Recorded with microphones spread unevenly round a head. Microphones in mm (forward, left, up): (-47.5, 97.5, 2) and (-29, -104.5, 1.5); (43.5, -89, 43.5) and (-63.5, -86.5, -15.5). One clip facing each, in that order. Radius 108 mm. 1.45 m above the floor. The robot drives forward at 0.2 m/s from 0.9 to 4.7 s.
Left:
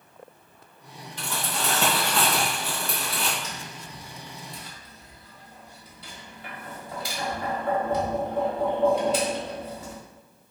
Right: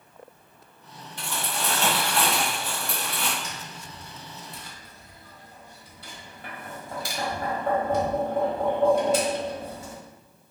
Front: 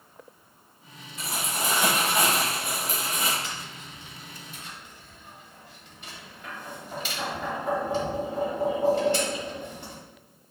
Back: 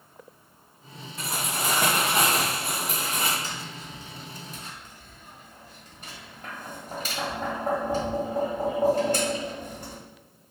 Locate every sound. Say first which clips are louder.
1.2 s crumpling: left 1 dB, back 1 dB; 110° left, 2 m; by 3.3 s 120° left, 2 m
3.4 s tapping: left 1 dB, back 2 dB; 115° right, 1.5 m; by 10.0 s 125° right, 1.6 m